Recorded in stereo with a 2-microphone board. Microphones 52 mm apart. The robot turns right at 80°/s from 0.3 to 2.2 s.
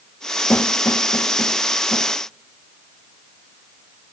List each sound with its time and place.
0.5 s a snare drum: 35° left (ahead or behind), 1.1 m; by 2.1 s 15° left (ahead or behind), 1.1 m